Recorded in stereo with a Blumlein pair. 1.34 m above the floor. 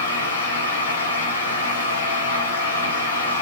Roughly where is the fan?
Ahead left.